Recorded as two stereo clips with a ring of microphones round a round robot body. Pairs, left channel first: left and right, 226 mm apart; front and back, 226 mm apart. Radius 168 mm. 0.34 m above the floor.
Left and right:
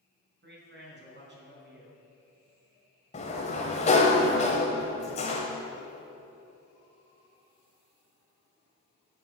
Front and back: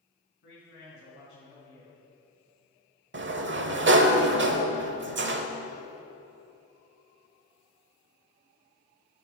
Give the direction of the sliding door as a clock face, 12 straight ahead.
7 o'clock.